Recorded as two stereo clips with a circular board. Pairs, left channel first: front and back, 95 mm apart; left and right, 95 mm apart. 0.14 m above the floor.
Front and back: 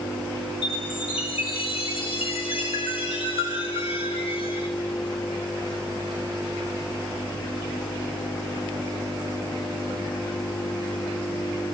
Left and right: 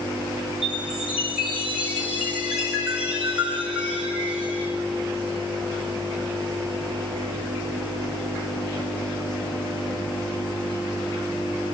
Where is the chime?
10° right, 6 m.